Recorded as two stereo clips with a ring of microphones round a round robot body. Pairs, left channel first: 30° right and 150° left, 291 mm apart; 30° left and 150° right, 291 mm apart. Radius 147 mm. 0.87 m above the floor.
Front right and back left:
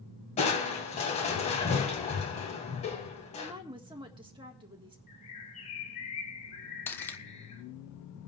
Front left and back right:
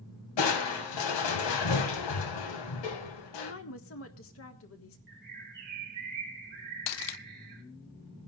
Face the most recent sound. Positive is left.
turn(degrees=55)